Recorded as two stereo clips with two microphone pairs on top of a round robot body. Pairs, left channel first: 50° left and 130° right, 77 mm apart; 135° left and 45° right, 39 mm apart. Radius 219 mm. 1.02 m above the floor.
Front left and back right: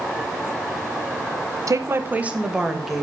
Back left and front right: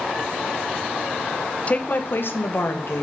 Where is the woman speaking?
175° right, 1.0 m; by 3.0 s 140° left, 2 m.